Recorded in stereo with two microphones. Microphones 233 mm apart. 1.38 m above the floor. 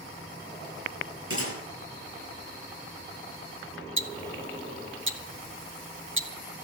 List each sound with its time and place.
1.3 s a gunshot: 65° right (ahead or behind), 9 m
4.0 s ticking: 60° right (ahead or behind), 1.0 m